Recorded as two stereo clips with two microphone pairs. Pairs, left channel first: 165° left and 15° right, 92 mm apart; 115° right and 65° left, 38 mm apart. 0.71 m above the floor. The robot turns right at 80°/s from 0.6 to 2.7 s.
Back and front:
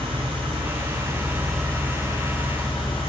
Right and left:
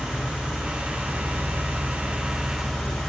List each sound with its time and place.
0.0 s an engine running: straight ahead, 2 m; by 3.1 s 165° left, 2 m